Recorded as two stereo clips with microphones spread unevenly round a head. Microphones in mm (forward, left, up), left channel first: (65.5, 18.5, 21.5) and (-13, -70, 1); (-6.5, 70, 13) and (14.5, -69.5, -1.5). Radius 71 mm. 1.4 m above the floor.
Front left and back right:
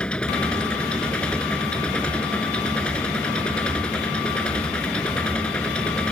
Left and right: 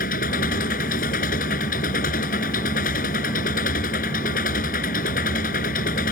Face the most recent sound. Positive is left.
turn(degrees=130)